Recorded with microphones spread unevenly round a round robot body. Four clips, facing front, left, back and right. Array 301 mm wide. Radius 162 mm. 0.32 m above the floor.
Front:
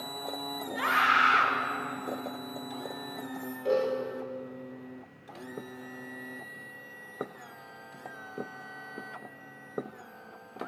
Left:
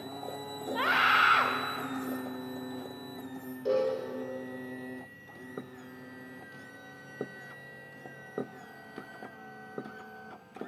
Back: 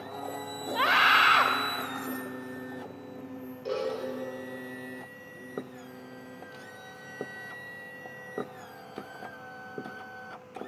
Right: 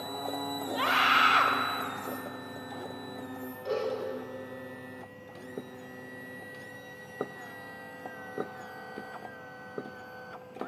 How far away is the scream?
About 1.0 m.